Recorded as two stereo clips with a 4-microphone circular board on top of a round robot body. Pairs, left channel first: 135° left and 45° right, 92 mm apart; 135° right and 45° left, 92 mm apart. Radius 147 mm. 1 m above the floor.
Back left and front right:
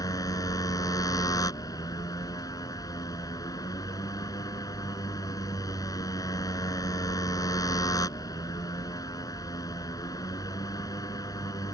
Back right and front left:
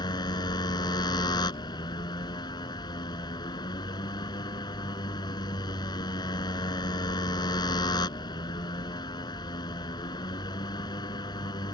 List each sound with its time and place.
0.0 s a motorcycle: 175° right